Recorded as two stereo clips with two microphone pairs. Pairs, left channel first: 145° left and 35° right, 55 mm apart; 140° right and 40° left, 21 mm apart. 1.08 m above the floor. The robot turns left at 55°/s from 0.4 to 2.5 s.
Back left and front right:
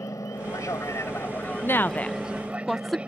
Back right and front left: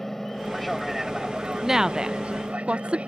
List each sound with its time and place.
0.0 s an aircraft: 145° left; by 3.1 s 30° left
1.6 s a woman speaking: 105° left; by 3.0 s 55° left